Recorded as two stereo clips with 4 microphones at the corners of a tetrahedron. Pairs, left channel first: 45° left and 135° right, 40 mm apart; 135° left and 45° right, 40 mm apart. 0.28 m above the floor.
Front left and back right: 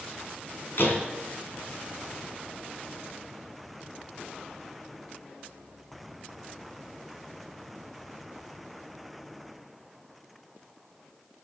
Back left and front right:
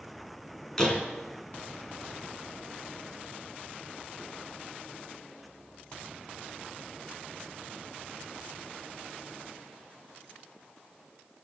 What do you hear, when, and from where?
0.8 s a door slam: 60° left, 2.5 m